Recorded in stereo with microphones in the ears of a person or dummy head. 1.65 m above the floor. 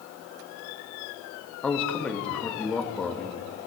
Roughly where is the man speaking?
Centre.